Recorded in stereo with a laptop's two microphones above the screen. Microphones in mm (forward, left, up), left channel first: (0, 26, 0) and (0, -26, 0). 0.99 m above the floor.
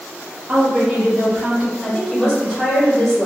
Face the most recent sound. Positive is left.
turn(degrees=-5)  # may be behind; listen again after turning